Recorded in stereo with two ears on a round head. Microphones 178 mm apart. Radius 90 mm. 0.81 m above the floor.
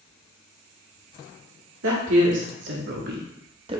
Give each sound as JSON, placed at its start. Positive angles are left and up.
{"t": 1.8, "sound": "a woman speaking", "side_deg": -70, "distance_m": 1.7}